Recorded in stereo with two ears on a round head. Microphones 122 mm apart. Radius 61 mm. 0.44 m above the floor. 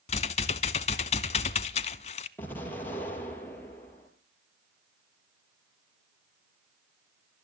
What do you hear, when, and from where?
0.1 s typing on a keyboard: 45° left (ahead or behind), 0.6 m
2.4 s an explosion: 15° left (ahead or behind), 4 m